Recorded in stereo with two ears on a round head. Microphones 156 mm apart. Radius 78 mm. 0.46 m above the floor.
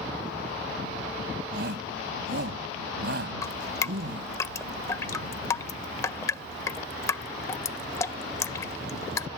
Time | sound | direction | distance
1.5 | a shout | 70° right (ahead or behind) | ?
3.4 | dripping | 15° left (ahead or behind) | ?